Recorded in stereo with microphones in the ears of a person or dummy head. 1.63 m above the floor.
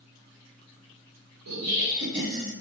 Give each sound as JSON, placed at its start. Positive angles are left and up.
{"t": 1.5, "sound": "laughter", "side_deg": -80, "distance_m": 1.1}